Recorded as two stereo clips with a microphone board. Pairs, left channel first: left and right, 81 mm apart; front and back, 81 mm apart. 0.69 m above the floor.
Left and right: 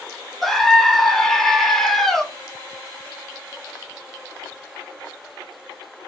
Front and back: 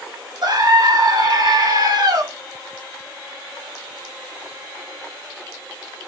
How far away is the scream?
About 1.2 m.